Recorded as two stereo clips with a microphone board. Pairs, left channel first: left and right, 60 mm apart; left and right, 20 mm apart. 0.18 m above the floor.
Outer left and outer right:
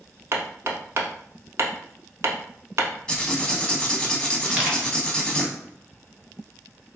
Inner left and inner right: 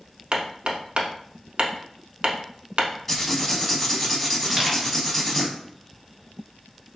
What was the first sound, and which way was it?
Hammering, 50° right (ahead or behind).